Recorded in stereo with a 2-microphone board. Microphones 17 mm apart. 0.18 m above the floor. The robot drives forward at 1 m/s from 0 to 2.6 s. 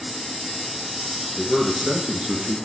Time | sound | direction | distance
1.4 | a man speaking | 55° right (ahead or behind) | 2.5 m